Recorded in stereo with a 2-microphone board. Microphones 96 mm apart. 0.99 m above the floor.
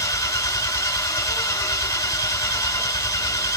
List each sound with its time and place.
0.0 s an engine running: 35° left (ahead or behind), 1.1 m